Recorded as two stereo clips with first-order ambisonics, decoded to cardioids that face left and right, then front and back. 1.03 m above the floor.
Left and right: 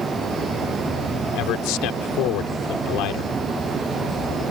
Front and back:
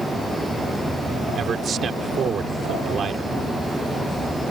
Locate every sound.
1.4 s a man speaking: 115° left